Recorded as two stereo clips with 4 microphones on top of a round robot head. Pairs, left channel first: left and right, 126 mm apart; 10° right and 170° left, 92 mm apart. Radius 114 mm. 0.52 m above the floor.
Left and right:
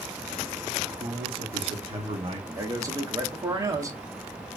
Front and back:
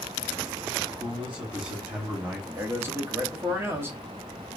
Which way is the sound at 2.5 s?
140° right.